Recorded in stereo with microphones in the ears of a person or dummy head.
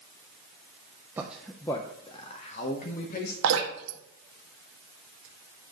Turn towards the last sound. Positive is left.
turn(degrees=-75)  # may be behind; listen again after turning